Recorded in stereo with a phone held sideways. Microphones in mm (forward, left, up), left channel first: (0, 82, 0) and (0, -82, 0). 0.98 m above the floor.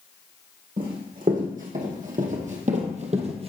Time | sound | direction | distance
0.8 | running footsteps | 60° right (ahead or behind) | 3 m